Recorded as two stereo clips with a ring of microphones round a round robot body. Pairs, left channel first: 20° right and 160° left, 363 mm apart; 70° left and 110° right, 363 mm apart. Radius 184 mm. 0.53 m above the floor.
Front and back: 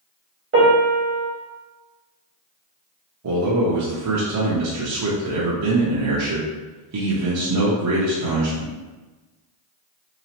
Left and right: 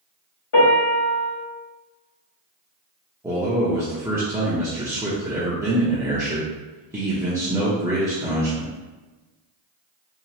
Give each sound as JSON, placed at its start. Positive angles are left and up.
{"t": 0.5, "sound": "a piano", "azimuth_deg": 100, "distance_m": 1.7}
{"t": 3.2, "sound": "a man speaking", "azimuth_deg": 170, "distance_m": 0.8}